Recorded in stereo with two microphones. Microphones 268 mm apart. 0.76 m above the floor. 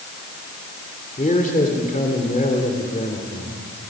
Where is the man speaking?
30° left (ahead or behind), 2.5 m.